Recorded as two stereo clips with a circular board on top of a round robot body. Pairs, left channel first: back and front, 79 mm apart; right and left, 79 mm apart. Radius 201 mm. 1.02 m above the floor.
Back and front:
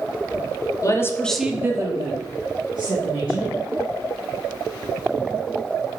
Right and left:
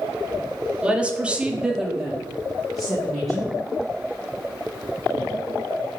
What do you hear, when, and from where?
0.8 s a woman speaking: 165° left, 0.7 m; by 3.5 s straight ahead, 1.7 m